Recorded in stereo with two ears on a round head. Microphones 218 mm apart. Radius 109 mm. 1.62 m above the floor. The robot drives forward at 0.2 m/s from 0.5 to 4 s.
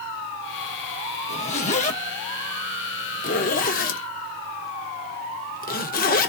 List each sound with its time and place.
1.3 s a zipper: 25° left (ahead or behind), 1.1 m; by 6.3 s 35° left (ahead or behind), 0.9 m